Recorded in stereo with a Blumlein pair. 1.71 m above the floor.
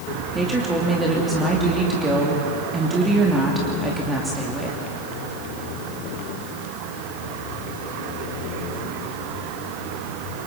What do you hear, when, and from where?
0.3 s a woman speaking: 10° right, 3 m